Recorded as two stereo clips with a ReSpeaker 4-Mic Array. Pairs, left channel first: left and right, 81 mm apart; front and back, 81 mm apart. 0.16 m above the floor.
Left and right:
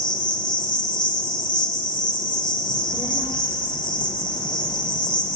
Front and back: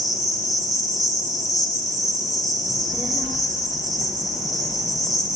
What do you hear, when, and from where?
0.0 s an insect: 90° left, 1.8 m
2.6 s a child speaking: 130° right, 5.5 m